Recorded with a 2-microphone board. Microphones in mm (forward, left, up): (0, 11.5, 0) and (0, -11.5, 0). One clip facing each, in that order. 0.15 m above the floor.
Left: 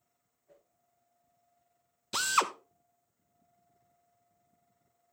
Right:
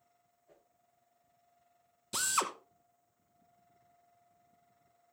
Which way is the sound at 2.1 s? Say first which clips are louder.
Left 5 dB; 25° left (ahead or behind).